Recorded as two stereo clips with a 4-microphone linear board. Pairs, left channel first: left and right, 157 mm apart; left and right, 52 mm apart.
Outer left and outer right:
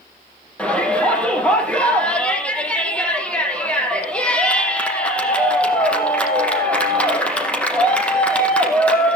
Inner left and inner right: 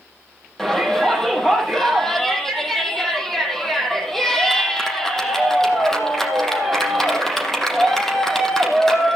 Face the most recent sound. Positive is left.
turn(degrees=10)  # may be behind; listen again after turning